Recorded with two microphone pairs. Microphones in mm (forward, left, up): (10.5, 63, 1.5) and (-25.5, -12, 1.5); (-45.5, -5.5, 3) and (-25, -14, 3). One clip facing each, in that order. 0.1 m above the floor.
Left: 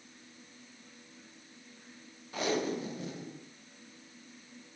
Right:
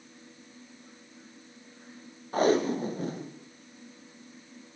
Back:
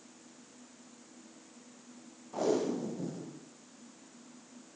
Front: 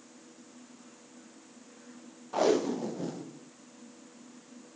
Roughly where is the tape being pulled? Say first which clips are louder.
Right 8 dB, front 4 dB; right.